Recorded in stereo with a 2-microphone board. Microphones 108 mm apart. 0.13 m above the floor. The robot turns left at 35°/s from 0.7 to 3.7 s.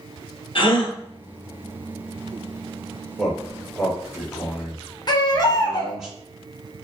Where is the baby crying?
40° left (ahead or behind), 0.6 m.